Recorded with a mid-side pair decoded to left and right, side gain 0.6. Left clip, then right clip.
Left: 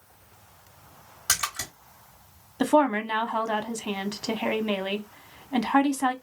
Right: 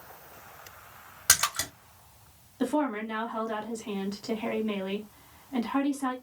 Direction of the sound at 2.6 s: 50° left.